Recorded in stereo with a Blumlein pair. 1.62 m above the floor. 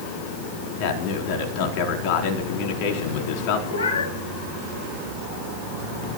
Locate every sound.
0.8 s a man speaking: 45° left, 4.5 m
3.7 s a cat meowing: 65° left, 4 m